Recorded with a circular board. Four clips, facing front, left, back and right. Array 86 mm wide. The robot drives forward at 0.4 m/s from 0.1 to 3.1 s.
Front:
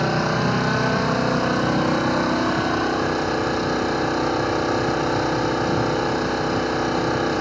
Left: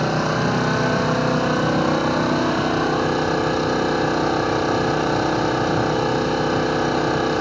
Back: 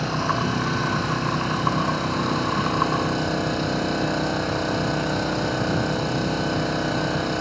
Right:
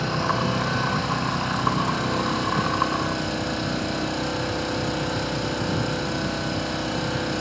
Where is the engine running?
70° left, 3 m; by 7.4 s 95° left, 2.5 m.